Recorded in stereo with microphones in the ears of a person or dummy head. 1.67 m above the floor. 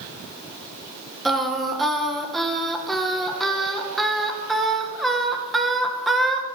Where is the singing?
5° left (ahead or behind), 1.9 m.